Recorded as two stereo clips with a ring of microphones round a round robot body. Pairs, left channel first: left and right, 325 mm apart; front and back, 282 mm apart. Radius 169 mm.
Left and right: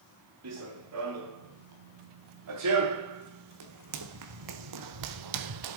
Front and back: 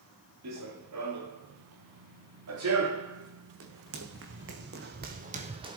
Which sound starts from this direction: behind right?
Running footsteps, at 0.4 s.